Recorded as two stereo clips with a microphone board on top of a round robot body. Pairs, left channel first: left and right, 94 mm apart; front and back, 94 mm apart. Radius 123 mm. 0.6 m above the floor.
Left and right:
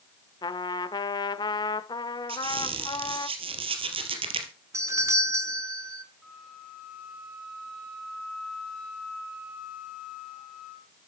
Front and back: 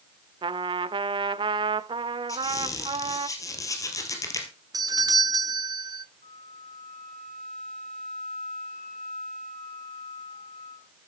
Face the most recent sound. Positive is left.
turn(degrees=-5)